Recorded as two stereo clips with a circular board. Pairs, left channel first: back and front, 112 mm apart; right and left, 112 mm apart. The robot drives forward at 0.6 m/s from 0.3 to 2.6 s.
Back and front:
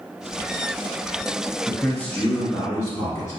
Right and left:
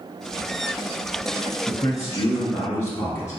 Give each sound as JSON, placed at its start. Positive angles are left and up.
{"t": 1.7, "sound": "a man speaking", "azimuth_deg": -95, "distance_m": 1.2}